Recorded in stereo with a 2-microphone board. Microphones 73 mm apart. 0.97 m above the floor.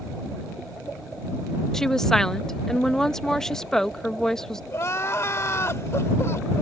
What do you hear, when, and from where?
1.7 s a woman speaking: 5° left (ahead or behind)
4.7 s crying: 40° left (ahead or behind)